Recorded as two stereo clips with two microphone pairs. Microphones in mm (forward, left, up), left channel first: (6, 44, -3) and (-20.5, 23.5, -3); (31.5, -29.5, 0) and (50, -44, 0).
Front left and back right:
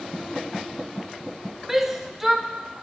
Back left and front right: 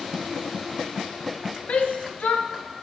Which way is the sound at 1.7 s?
135° left.